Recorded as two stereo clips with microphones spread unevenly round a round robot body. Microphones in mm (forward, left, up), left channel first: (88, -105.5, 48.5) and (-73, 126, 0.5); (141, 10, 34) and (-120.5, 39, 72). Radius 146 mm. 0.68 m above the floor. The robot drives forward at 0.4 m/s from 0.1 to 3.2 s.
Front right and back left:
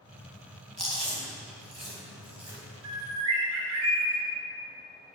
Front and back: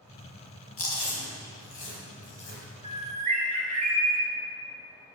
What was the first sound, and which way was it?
Chewing, 35° left.